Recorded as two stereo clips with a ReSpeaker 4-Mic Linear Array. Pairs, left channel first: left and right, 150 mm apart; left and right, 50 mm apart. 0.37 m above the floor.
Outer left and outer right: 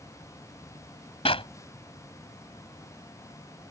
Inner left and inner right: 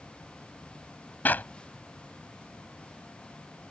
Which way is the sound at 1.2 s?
40° left (ahead or behind).